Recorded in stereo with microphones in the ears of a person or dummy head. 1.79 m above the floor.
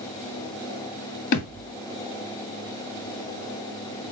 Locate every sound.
1.3 s a thud: 50° left (ahead or behind), 2 m